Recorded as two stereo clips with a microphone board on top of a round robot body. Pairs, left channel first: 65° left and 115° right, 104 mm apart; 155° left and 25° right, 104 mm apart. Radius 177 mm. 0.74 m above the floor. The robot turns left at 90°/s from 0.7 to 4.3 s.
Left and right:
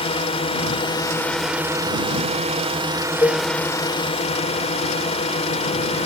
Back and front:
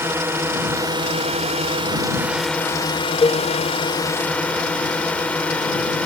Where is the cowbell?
125° left; by 3.5 s 100° left.